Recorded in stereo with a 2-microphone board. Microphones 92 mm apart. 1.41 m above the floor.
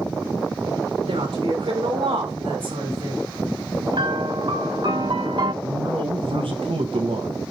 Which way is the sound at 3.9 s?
60° right (ahead or behind).